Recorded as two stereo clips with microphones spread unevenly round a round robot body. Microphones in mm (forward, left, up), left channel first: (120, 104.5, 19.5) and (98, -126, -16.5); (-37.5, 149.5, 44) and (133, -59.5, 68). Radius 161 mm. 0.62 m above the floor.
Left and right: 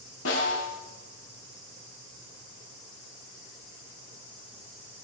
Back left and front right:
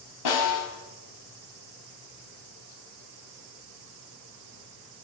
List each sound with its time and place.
0.2 s a snare drum: 140° left, 3.5 m